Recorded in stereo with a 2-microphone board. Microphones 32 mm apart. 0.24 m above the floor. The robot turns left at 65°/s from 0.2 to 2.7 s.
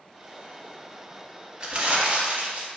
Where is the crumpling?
40° right, 0.9 m; by 2.7 s 105° right, 0.9 m.